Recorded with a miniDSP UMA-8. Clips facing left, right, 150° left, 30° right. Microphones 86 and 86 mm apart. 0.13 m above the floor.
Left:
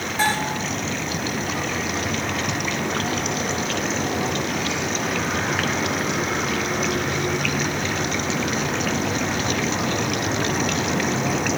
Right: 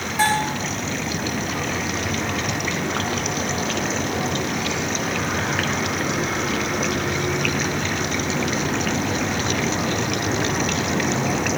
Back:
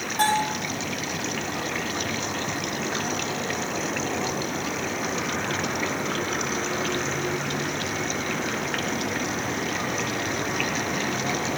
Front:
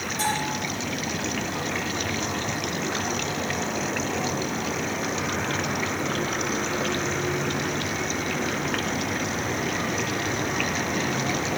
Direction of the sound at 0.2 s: 170° right.